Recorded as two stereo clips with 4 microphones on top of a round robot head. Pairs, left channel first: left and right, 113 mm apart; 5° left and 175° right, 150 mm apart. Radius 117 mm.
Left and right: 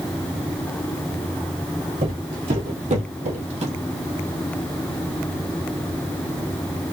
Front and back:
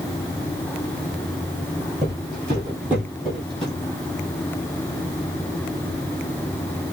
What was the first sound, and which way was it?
Footsteps, 115° right.